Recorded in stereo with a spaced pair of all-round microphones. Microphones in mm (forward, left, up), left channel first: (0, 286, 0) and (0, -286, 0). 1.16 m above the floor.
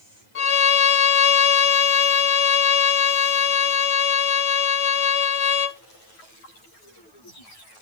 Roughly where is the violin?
Left.